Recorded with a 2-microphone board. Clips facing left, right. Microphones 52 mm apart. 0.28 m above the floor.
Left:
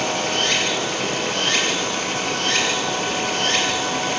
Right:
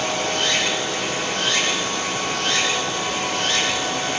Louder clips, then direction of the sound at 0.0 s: Left 1 dB; 50° left (ahead or behind).